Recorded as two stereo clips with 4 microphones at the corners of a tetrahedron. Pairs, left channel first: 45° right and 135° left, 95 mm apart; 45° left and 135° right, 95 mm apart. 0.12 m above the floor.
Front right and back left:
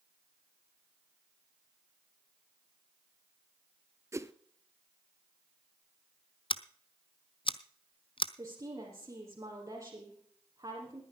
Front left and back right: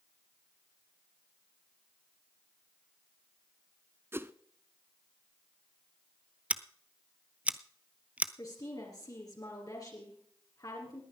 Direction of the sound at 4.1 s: 170° left.